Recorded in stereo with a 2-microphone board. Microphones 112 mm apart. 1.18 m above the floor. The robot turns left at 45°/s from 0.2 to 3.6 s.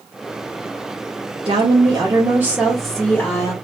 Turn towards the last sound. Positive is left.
turn(degrees=145)